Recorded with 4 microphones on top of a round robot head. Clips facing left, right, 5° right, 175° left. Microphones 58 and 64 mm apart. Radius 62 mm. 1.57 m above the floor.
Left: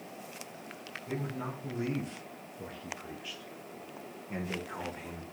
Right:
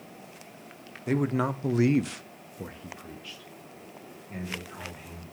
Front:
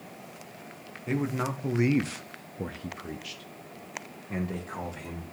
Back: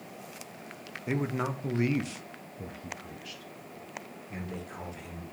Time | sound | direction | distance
1.1 | a man speaking | 110° right | 1.0 m